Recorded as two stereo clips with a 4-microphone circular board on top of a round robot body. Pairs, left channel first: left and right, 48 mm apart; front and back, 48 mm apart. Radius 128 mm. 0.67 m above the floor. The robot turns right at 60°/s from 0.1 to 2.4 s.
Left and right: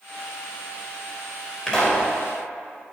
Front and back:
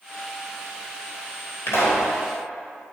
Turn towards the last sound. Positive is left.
turn(degrees=45)